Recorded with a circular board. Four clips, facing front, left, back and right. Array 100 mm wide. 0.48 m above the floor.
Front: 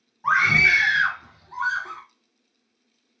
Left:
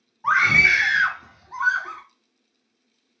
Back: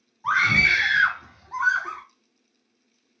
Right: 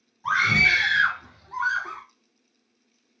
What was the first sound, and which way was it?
A scream, 55° left.